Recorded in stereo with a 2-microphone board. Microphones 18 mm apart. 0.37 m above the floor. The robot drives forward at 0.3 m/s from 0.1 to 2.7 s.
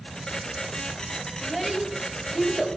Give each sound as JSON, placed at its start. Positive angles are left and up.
{"t": 1.4, "sound": "a child speaking", "side_deg": -5, "distance_m": 4.0}